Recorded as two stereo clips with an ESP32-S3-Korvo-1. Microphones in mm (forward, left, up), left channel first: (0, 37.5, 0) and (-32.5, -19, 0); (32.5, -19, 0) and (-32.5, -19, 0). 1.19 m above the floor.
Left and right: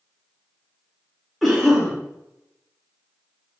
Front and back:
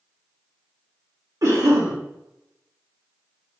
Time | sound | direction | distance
1.4 | a cough | 150° left | 1.0 m